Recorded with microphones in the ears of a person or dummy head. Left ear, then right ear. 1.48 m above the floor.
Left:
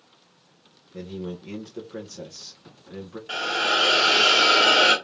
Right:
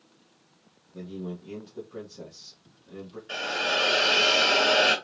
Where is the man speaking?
60° left (ahead or behind), 1.2 m.